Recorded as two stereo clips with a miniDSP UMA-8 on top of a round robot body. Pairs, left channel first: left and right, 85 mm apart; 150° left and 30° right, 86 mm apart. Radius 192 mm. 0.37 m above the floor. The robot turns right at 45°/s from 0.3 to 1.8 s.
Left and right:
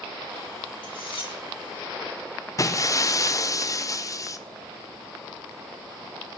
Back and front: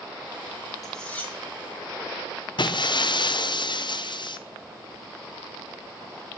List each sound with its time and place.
0.8 s cutlery clinking: 60° left, 5.5 m; by 1.3 s 85° left, 5.5 m
2.6 s breaking glass: 135° left, 1.3 m